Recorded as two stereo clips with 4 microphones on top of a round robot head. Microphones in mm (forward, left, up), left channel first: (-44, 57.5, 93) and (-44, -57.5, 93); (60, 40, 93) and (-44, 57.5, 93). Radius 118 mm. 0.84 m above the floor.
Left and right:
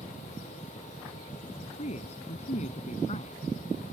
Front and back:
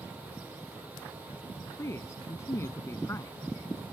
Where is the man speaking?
55° left.